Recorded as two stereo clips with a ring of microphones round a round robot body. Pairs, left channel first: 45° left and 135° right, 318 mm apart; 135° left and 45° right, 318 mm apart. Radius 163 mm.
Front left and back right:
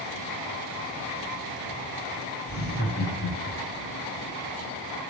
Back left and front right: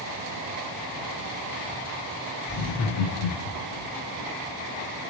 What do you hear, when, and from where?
2.5 s laughter: 105° left, 2.5 m; by 3.9 s 125° left, 1.4 m